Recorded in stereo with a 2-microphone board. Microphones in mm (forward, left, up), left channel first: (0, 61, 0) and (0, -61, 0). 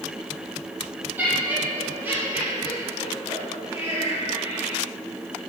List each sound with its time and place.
1.2 s laughter: 15° right (ahead or behind), 7.5 m; by 4.8 s 20° right (ahead or behind), 5 m